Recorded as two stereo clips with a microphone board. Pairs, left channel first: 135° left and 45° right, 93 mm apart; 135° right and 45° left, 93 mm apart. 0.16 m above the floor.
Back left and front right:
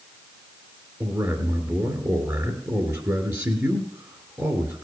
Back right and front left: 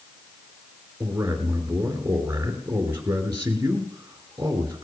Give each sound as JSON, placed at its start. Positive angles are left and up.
{"t": 1.0, "sound": "a man speaking", "azimuth_deg": -5, "distance_m": 2.5}